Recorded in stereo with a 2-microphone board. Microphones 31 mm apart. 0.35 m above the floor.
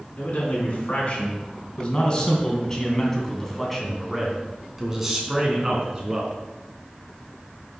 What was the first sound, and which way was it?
A man speaking, 50° left (ahead or behind).